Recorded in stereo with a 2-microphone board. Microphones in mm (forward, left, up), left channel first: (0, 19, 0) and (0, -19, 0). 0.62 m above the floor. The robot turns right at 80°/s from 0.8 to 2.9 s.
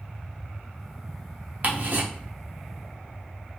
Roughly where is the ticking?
Right.